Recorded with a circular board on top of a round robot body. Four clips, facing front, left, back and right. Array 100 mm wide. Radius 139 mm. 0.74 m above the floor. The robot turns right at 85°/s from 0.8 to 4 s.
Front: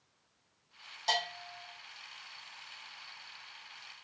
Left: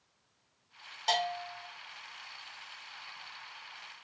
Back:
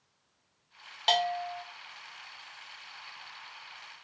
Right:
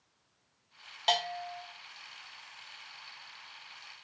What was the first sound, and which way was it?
A bell, 155° right.